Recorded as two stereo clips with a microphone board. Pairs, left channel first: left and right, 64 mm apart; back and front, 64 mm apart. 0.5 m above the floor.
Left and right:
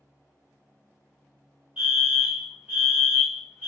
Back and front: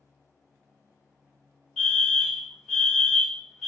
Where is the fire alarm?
100° right, 1.7 m.